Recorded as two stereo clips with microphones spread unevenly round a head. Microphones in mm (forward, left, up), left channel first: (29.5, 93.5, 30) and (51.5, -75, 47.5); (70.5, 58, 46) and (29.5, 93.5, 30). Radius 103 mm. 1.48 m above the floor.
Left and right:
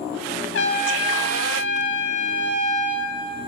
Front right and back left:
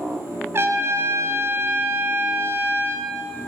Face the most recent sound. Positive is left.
turn(degrees=95)